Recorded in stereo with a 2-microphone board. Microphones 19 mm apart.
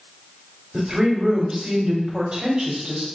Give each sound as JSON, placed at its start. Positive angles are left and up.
{"t": 0.7, "sound": "a woman speaking", "side_deg": -65, "distance_m": 1.5}